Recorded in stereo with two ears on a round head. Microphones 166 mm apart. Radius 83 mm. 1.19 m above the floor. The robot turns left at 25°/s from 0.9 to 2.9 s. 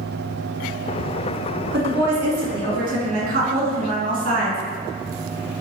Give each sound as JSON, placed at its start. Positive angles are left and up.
{"t": 1.7, "sound": "a woman speaking", "side_deg": -80, "distance_m": 1.7}